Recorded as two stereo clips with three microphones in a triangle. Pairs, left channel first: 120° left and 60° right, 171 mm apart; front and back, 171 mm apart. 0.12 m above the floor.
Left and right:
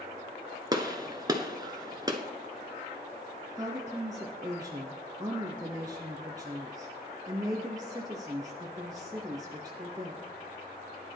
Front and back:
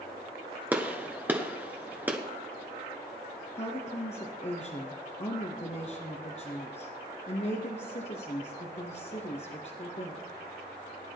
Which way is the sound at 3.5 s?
5° right.